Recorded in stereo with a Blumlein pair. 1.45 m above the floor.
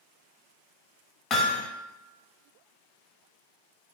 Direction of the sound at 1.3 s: 30° left.